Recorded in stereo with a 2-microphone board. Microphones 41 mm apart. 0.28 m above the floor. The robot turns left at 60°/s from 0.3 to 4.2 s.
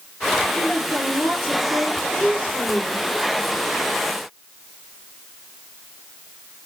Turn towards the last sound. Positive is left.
turn(degrees=-60)